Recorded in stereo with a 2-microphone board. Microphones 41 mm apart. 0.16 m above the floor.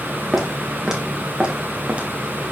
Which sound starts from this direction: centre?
Footsteps, at 0.3 s.